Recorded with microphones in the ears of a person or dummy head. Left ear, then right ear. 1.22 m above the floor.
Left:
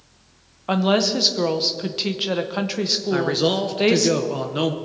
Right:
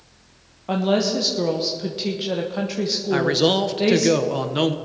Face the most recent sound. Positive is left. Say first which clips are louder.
# right 4 dB
turn(degrees=-15)  # may be behind; listen again after turning